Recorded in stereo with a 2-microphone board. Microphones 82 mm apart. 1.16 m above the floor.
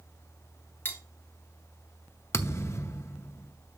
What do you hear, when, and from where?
0.8 s cutlery clinking: 25° left (ahead or behind), 1.3 m
2.3 s a thud: 35° left (ahead or behind), 0.7 m